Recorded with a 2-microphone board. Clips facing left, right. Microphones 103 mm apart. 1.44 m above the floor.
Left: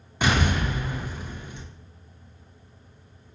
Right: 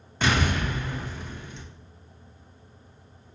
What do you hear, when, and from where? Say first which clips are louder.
0.2 s an explosion: left 1 dB; 10° left (ahead or behind), 0.8 m